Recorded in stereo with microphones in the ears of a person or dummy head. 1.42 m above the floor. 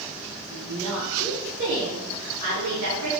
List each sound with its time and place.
0.5 s a woman speaking: 5° left (ahead or behind), 1.4 m; by 3.1 s 80° right, 1.3 m